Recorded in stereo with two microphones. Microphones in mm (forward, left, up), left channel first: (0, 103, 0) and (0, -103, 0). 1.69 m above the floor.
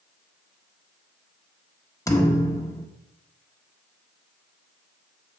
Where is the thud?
15° left (ahead or behind), 1.3 m.